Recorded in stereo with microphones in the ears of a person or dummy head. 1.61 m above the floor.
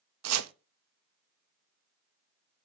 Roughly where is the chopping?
Right.